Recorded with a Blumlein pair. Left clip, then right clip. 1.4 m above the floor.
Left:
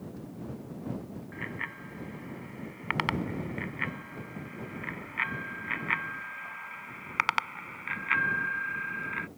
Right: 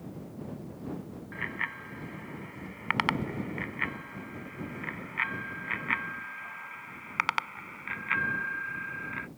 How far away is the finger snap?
I don't hear a finger snap.